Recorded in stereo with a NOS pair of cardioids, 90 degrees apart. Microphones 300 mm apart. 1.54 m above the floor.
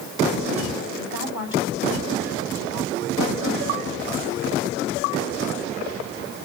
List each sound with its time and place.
1.0 s a woman speaking: 40° left, 10 m